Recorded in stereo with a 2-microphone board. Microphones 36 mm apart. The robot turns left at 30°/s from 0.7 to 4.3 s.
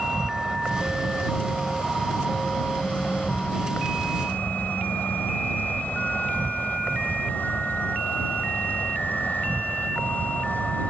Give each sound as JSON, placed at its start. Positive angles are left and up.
{"t": 0.0, "sound": "an insect", "azimuth_deg": -150}